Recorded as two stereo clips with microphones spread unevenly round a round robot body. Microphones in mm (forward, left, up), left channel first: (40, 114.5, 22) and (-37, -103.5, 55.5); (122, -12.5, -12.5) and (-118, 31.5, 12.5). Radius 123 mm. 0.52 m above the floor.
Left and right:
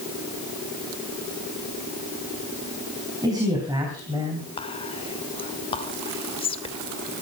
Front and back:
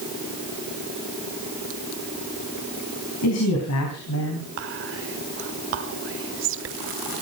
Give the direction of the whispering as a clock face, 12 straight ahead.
8 o'clock.